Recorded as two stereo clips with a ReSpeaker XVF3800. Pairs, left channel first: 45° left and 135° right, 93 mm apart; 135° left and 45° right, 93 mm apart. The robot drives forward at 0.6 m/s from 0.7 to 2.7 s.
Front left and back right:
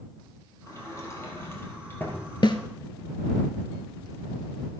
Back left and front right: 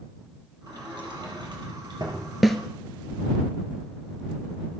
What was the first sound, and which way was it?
A sliding door, 10° right.